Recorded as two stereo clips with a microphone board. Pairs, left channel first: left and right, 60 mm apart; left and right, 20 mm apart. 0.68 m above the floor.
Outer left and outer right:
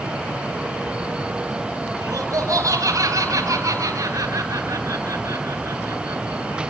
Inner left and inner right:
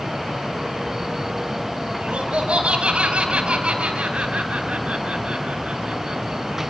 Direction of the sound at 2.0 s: 75° right (ahead or behind).